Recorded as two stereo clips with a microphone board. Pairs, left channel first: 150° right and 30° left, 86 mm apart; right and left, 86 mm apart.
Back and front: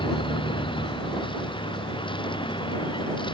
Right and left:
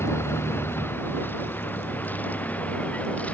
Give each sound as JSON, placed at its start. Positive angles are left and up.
{"t": 0.0, "sound": "a vehicle", "azimuth_deg": -150}